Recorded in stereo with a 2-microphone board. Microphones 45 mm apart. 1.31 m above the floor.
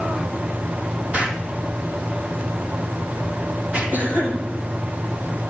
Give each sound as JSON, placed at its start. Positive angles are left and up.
{"t": 1.1, "sound": "an explosion", "side_deg": -25, "distance_m": 2.5}
{"t": 3.9, "sound": "a cough", "side_deg": -45, "distance_m": 9.5}